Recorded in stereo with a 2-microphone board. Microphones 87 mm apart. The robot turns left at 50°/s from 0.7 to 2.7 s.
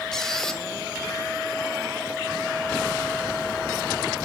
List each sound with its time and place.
0.1 s a squeak: 5° left (ahead or behind), 0.7 m